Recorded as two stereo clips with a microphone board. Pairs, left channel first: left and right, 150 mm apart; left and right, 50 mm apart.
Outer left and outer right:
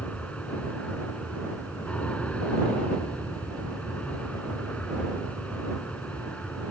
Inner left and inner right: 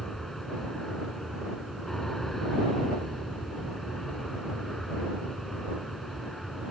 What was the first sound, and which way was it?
An aircraft, 10° left (ahead or behind).